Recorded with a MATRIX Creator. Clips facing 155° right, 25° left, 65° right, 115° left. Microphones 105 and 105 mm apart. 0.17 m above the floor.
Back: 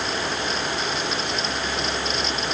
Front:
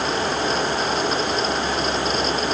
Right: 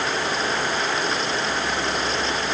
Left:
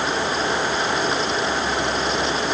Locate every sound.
Only background noise.